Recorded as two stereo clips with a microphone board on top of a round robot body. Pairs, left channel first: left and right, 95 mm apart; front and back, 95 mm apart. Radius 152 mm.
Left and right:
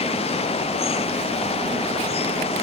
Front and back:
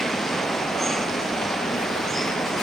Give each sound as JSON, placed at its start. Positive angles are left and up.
{"t": 0.0, "sound": "running water", "azimuth_deg": 90}